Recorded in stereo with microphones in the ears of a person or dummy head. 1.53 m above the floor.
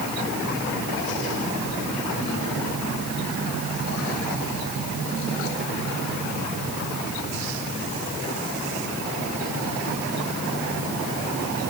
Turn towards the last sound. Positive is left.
No sound to turn to.